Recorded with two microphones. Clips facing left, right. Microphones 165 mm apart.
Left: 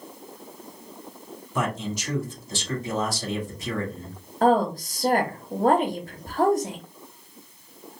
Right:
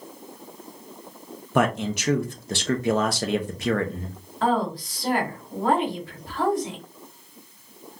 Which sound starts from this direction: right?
A man speaking, at 1.6 s.